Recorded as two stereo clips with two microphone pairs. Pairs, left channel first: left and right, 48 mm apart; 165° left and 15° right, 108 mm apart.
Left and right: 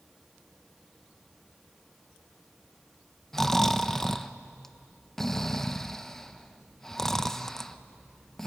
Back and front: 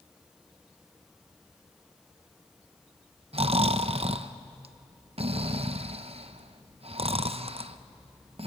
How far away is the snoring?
About 0.7 m.